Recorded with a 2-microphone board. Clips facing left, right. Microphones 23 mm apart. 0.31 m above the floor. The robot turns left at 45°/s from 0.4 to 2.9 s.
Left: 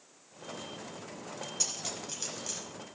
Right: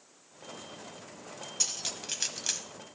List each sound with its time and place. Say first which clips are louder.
1.6 s cutlery clinking: right 3 dB; 15° right (ahead or behind), 1.1 m; by 2.6 s 50° right (ahead or behind), 1.1 m